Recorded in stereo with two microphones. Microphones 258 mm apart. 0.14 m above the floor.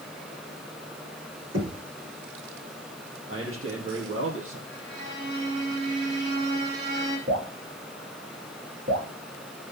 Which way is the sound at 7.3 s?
60° right (ahead or behind).